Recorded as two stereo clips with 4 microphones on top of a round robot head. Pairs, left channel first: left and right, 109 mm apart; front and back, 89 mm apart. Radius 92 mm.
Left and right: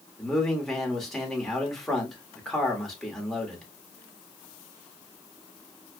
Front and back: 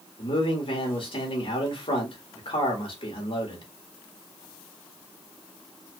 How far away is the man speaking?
About 1.7 m.